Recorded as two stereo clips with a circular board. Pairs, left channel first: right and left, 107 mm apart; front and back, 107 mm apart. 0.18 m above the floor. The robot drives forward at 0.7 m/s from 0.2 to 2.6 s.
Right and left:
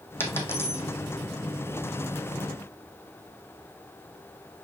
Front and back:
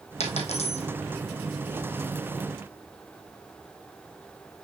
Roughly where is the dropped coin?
Ahead.